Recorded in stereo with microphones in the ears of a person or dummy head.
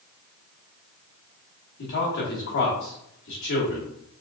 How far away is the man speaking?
About 2 m.